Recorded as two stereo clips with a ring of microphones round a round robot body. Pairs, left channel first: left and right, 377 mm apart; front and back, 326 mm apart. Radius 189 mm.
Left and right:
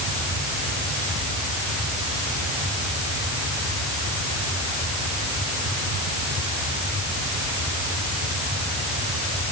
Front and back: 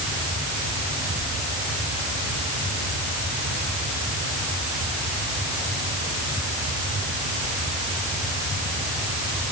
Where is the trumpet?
No trumpet in this recording.